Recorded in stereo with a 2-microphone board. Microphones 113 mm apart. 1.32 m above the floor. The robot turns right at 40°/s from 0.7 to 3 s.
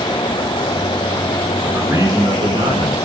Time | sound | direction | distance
1.6 | a man speaking | 160° right | 3.5 m